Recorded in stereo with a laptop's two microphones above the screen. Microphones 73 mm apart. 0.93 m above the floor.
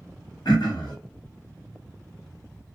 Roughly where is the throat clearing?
Left.